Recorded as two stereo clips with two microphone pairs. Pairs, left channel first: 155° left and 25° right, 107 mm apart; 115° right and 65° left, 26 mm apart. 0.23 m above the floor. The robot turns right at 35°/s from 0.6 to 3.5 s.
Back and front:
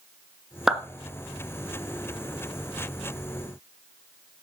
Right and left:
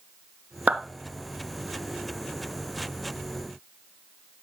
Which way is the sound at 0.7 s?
60° left.